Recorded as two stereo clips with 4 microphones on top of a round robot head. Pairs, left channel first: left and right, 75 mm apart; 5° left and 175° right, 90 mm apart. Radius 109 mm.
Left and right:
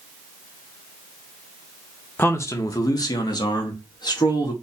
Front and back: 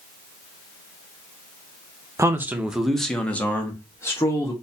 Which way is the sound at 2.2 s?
140° left.